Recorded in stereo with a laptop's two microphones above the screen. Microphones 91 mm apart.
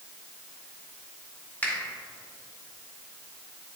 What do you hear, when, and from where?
1.6 s a finger snap: 20° left (ahead or behind), 2 m